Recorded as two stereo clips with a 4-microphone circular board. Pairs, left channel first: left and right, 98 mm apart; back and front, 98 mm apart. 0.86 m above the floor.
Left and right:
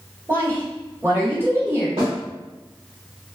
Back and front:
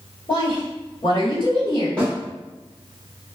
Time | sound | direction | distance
0.3 | a woman speaking | 155° right | 1.6 m
2.0 | a snare drum | 100° right | 1.5 m